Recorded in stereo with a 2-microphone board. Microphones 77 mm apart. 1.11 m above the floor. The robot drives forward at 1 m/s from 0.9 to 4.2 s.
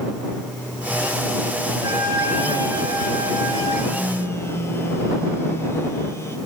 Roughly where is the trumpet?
Right.